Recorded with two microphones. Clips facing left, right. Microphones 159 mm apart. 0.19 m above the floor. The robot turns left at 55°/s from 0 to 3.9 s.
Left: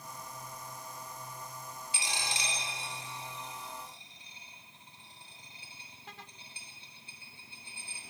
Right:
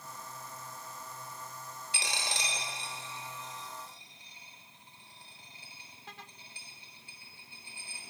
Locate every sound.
1.9 s a dropped coin: 75° right (ahead or behind), 0.9 m; by 8.0 s 20° left (ahead or behind), 0.9 m